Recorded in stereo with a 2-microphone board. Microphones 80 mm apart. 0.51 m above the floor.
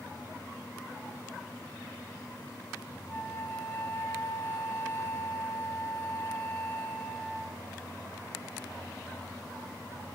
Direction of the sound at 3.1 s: 25° left (ahead or behind).